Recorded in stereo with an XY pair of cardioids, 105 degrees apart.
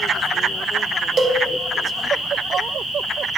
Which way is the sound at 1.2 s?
30° right.